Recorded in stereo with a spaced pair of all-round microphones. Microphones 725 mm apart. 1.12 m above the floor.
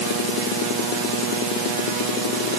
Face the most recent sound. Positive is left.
No sound to turn to.